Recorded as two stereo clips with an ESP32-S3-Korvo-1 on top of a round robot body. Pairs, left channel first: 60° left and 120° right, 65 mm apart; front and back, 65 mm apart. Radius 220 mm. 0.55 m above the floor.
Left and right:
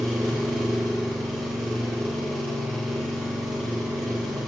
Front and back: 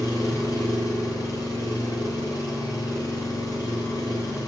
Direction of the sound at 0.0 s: 30° right.